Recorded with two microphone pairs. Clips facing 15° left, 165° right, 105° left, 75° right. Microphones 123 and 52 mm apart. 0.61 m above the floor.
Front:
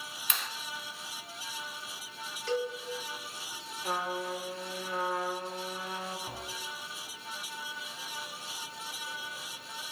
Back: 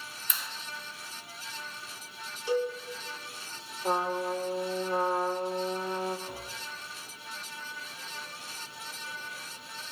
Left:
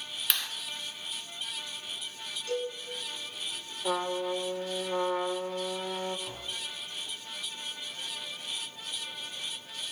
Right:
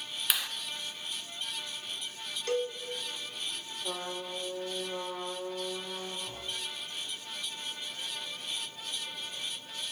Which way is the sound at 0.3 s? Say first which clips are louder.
Front 3 dB, even; 10° left.